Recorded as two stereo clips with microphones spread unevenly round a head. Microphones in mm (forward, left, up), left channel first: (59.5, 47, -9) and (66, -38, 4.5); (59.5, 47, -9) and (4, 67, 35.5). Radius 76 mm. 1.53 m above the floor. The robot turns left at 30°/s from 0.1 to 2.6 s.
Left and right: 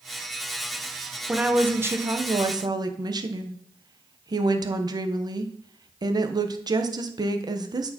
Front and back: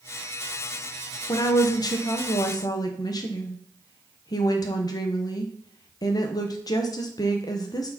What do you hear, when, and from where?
1.3 s a woman speaking: 5° right, 1.1 m; by 7.9 s 45° right, 1.1 m